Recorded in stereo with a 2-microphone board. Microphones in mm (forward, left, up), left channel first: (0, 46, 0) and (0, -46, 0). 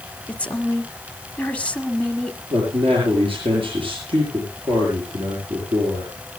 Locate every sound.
0.3 s a woman speaking: 15° left (ahead or behind), 1.4 m
2.5 s a man speaking: 70° right (ahead or behind), 5.5 m